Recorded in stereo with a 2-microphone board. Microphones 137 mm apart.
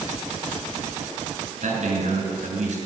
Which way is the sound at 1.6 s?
60° right (ahead or behind).